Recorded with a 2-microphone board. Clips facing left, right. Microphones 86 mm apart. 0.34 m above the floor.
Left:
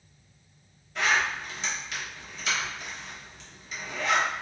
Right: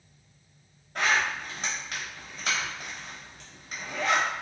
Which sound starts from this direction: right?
A zipper, at 0.9 s.